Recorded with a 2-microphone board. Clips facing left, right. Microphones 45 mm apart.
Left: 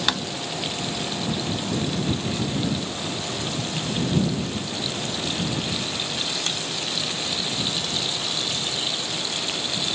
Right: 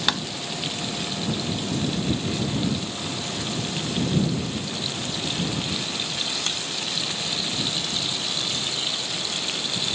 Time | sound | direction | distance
0.1 | tapping | 5° right (ahead or behind) | ?